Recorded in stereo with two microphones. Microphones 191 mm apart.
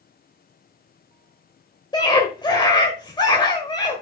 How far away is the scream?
About 1.5 m.